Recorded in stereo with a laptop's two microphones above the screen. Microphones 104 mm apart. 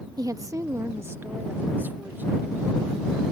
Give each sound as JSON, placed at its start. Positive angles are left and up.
{"t": 0.2, "sound": "a woman speaking", "side_deg": -40}